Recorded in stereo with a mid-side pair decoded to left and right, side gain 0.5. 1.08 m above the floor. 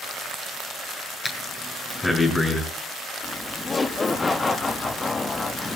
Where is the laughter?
25° left, 2 m.